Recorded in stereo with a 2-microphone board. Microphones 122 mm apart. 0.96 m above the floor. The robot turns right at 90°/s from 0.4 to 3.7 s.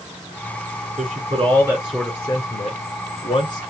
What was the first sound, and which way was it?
A man speaking, 80° right.